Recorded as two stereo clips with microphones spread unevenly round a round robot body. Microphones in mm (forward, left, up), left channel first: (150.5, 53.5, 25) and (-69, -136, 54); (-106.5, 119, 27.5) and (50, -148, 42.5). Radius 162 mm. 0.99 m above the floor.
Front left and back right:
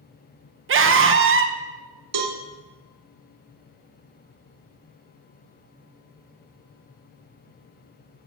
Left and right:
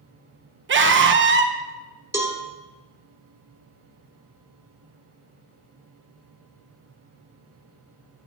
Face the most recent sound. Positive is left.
turn(degrees=-140)